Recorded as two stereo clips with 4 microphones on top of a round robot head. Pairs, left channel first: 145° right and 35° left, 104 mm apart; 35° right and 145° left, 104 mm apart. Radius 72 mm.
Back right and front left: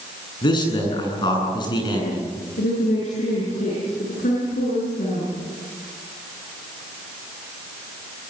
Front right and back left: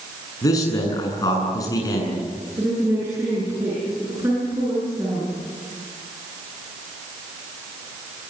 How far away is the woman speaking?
About 8 m.